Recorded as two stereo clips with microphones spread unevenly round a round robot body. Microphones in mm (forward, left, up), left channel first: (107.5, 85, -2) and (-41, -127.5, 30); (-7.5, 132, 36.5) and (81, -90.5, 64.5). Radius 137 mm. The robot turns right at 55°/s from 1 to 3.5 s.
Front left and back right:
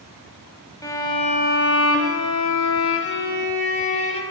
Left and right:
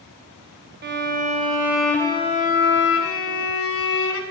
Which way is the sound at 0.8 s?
20° right.